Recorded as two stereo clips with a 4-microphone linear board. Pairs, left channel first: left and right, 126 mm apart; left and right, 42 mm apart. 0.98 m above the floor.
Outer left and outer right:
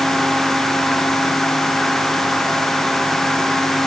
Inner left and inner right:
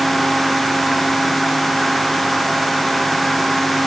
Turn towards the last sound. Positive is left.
No sound to turn to.